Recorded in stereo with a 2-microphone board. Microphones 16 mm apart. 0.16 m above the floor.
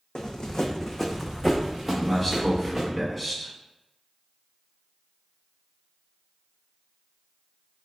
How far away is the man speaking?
About 1.0 m.